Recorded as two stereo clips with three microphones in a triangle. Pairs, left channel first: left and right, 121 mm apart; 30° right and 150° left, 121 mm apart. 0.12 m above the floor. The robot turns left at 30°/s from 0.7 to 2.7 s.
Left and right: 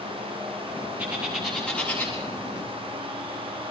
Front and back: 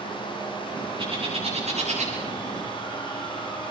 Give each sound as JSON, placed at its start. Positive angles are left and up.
{"t": 1.0, "sound": "a bird", "azimuth_deg": -165, "distance_m": 8.0}